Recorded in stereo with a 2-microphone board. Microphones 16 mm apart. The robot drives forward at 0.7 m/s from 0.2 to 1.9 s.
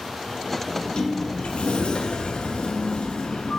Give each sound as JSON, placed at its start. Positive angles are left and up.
{"t": 0.7, "sound": "a sliding door", "side_deg": 35, "distance_m": 0.9}